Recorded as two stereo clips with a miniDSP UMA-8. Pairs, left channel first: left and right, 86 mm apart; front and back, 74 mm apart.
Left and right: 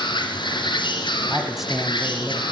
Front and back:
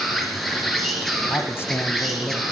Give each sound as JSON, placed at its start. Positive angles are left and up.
{"t": 0.0, "sound": "an insect", "azimuth_deg": 85, "distance_m": 3.5}
{"t": 1.2, "sound": "a man speaking", "azimuth_deg": -5, "distance_m": 1.3}